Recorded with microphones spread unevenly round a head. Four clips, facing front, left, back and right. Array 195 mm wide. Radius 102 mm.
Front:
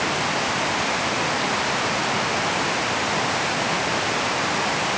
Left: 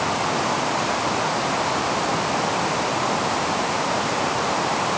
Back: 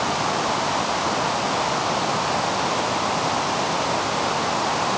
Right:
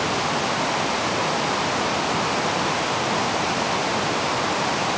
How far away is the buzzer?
I don't hear a buzzer.